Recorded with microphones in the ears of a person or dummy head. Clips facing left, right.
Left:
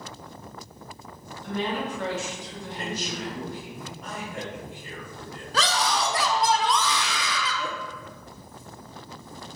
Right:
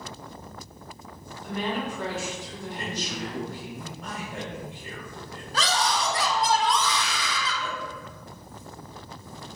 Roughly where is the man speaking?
Right.